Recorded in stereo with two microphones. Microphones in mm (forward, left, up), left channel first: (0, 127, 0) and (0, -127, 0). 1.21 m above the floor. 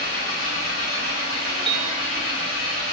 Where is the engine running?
60° left (ahead or behind), 7 m.